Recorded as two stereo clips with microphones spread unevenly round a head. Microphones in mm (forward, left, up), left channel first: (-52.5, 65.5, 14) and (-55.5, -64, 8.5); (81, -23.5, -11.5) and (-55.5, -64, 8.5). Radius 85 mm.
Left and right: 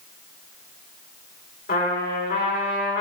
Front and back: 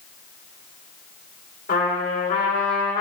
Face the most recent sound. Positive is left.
turn(degrees=60)